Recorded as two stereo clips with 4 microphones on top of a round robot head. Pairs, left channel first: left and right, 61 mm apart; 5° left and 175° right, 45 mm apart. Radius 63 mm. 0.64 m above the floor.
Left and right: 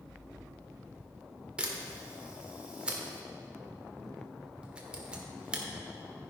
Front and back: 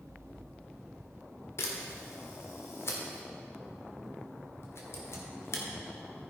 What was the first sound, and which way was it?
A camera shutter, 15° right.